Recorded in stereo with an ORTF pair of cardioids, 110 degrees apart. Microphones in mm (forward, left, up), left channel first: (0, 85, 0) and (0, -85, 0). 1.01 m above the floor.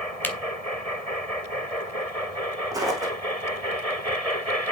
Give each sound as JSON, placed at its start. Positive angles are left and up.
{"t": 0.2, "sound": "a camera shutter", "azimuth_deg": 10, "distance_m": 2.5}
{"t": 2.7, "sound": "footsteps", "azimuth_deg": -20, "distance_m": 4.0}